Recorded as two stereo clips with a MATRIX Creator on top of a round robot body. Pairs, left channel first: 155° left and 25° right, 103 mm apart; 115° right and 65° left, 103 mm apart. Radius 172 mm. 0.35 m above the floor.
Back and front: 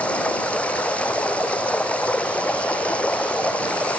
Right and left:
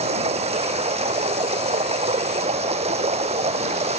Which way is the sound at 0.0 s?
80° left.